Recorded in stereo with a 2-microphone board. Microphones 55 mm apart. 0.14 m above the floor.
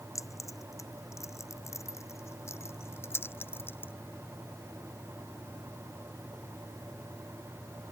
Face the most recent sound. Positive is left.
turn(degrees=40)  # may be behind; listen again after turning